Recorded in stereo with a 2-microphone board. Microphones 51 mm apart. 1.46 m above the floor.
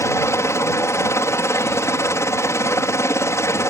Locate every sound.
0.0 s a helicopter: 65° left (ahead or behind)